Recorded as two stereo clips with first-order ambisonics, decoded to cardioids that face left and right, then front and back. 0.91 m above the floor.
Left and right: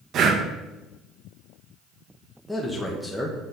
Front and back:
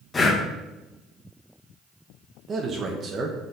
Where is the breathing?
65° right, 0.7 m.